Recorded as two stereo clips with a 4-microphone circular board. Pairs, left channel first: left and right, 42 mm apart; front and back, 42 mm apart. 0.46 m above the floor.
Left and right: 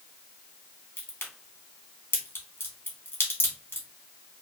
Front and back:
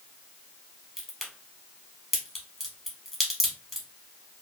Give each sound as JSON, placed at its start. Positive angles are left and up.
{"t": 1.0, "sound": "a crack", "azimuth_deg": 90, "distance_m": 1.3}